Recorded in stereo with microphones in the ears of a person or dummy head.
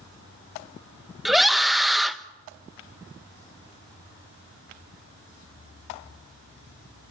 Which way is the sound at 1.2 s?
5° left (ahead or behind).